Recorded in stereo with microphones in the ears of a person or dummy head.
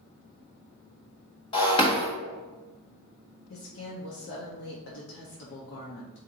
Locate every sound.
1.5 s breaking glass: 35° left (ahead or behind), 1.1 m
3.5 s a woman speaking: 70° left (ahead or behind), 0.8 m